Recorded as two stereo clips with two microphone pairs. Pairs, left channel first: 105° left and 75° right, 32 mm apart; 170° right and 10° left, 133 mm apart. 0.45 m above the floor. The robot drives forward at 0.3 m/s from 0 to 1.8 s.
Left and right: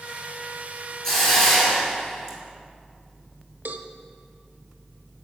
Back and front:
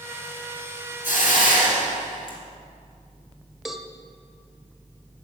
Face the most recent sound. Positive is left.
turn(degrees=-80)